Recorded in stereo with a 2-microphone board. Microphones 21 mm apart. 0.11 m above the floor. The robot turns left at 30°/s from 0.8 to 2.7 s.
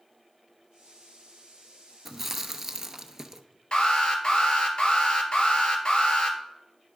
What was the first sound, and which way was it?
Chewing, 10° right (ahead or behind).